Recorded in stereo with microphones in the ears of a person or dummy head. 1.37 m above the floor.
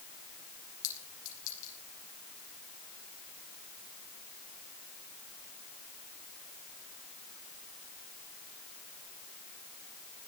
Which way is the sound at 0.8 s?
80° left.